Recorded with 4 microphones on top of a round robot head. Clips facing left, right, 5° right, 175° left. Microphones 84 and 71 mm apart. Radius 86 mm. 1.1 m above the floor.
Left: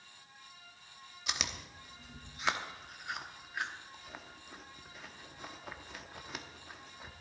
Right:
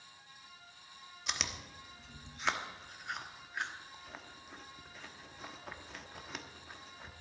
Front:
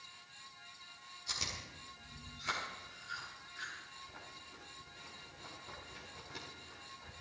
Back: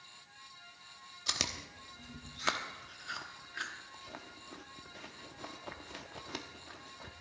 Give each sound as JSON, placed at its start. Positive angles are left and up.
{"t": 1.3, "sound": "chewing", "azimuth_deg": 175, "distance_m": 1.0}